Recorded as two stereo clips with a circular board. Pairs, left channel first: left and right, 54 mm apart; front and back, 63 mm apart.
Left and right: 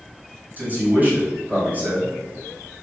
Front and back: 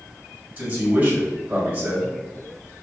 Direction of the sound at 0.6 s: 130° right.